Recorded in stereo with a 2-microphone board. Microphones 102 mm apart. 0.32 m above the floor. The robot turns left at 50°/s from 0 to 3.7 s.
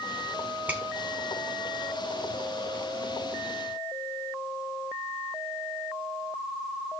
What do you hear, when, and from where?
0.7 s a finger snap: 15° right (ahead or behind), 3 m; by 0.8 s 10° right (ahead or behind), 3 m